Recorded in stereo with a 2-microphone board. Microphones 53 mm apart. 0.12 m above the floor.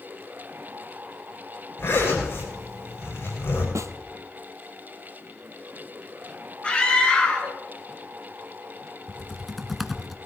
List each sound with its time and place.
1.8 s a zipper: 55° left (ahead or behind), 6.5 m
3.8 s a snare drum: 75° right (ahead or behind), 0.8 m
6.6 s a scream: 20° left (ahead or behind), 1.7 m
9.1 s typing on a keyboard: centre (ahead or behind), 0.8 m